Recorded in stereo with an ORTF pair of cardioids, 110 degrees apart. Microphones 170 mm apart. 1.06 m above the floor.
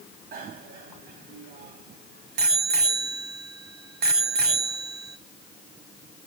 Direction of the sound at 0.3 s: 65° right.